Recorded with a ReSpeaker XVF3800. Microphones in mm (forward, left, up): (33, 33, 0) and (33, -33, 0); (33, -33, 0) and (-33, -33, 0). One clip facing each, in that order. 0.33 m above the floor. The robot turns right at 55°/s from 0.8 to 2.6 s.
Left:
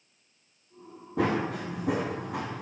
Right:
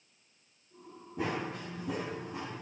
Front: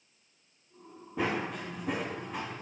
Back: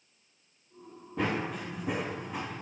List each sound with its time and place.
1.2 s running footsteps: 85° left, 1.4 m; by 2.6 s 95° left, 1.2 m